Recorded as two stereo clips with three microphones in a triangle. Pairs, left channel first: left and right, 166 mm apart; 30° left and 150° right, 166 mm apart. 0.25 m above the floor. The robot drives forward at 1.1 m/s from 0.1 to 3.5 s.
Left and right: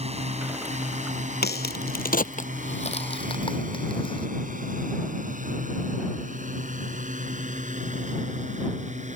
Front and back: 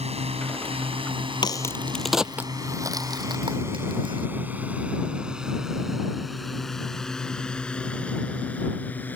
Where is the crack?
90° left; by 4.3 s 150° left.